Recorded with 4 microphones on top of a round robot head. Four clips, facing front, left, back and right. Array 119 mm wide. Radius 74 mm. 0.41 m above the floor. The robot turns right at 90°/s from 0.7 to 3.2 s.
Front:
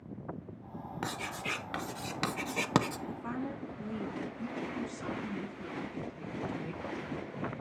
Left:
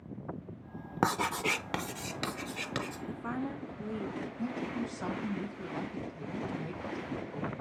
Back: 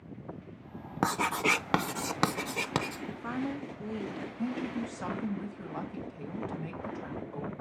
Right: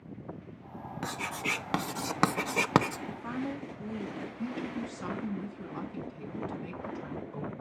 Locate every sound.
1.0 s writing: 130° left, 0.5 m; by 3.0 s 55° right, 0.5 m
3.1 s a woman speaking: 150° left, 0.8 m; by 4.3 s 160° left, 0.8 m
4.4 s a woman speaking: 145° left, 2.5 m